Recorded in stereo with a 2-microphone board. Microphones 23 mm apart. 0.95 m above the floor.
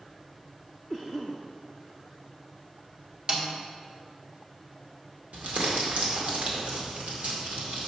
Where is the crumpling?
85° right, 1.8 m.